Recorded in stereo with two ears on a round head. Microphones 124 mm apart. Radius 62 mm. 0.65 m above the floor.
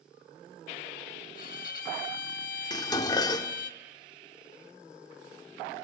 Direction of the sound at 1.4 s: 60° left (ahead or behind).